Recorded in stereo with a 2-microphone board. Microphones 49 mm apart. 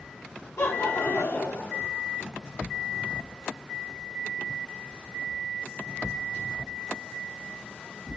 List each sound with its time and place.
0.6 s laughter: 85° left, 2 m